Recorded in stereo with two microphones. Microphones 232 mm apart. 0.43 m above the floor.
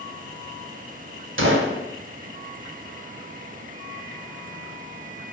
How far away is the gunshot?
About 0.6 m.